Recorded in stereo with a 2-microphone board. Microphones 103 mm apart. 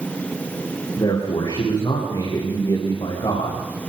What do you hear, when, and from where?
1.0 s a man speaking: 55° left (ahead or behind), 9 m